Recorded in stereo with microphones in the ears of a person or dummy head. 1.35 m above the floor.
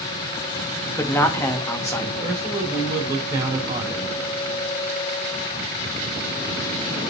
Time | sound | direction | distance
0.9 | a man speaking | 10° left (ahead or behind) | 1.7 m
2.2 | a man speaking | 25° right (ahead or behind) | 4.5 m